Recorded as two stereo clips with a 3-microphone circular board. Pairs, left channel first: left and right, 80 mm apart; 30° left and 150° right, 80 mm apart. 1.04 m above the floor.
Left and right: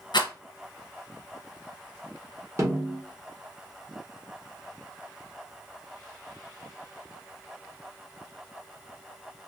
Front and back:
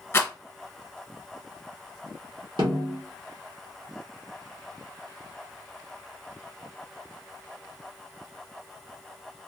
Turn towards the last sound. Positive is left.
turn(degrees=-145)